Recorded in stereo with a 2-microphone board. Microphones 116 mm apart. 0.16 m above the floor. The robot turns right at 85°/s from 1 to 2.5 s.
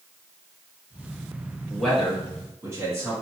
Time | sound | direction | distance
1.7 | a man speaking | 10° left (ahead or behind) | 1.8 m